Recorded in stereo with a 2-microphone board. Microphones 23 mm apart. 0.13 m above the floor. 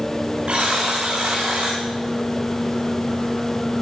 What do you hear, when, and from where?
0.5 s a buzzer: 55° right (ahead or behind), 10 m